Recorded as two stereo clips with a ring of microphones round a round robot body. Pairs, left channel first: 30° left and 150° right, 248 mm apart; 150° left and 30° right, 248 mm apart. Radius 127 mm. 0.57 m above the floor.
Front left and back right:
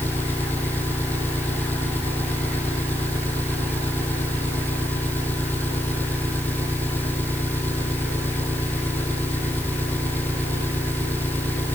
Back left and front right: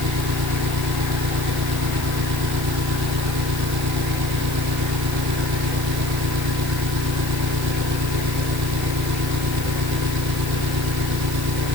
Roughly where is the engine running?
Ahead right.